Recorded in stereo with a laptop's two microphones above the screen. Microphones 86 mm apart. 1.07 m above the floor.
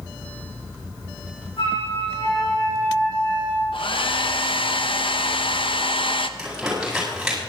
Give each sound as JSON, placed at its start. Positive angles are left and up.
{"t": 1.6, "sound": "a flute", "side_deg": 85, "distance_m": 8.5}
{"t": 3.7, "sound": "a hair dryer", "side_deg": 75, "distance_m": 0.8}
{"t": 6.4, "sound": "crumpling", "side_deg": -5, "distance_m": 8.0}